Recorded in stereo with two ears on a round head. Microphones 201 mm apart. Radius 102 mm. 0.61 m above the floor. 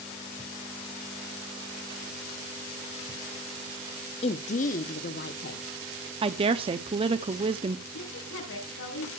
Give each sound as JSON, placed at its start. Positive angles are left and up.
{"t": 4.2, "sound": "a woman speaking", "side_deg": 25, "distance_m": 0.8}
{"t": 6.2, "sound": "a woman speaking", "side_deg": -25, "distance_m": 0.6}
{"t": 7.9, "sound": "a woman speaking", "side_deg": 65, "distance_m": 5.0}